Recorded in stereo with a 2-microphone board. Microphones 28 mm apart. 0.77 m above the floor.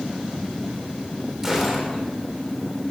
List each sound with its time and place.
1.4 s a gunshot: 10° right (ahead or behind), 3.5 m